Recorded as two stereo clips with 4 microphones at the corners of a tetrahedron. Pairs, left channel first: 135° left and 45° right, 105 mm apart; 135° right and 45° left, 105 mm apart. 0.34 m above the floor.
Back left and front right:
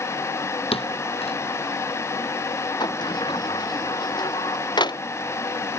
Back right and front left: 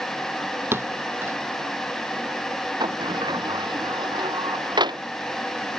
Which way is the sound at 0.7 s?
115° left.